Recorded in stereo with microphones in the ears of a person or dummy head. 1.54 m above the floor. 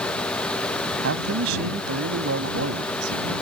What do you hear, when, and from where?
1.0 s a man speaking: 75° right (ahead or behind); by 3.3 s 85° right